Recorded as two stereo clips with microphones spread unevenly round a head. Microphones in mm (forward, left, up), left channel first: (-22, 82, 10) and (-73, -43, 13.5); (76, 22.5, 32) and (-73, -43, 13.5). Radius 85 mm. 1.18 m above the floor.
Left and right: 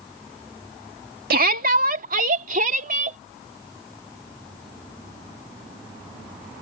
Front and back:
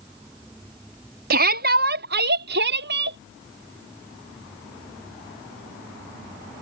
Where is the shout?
125° right; by 3.2 s 140° right.